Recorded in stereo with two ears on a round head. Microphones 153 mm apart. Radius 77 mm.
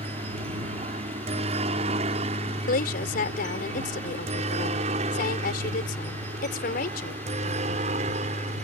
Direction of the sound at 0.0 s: 35° right (ahead or behind).